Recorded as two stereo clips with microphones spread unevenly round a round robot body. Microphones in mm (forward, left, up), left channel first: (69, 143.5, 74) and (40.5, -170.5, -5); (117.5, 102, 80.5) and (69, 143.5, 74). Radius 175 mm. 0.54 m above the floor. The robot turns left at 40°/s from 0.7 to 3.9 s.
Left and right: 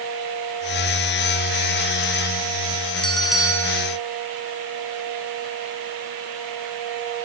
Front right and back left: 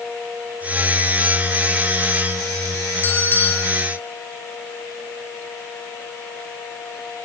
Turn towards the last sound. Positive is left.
turn(degrees=-70)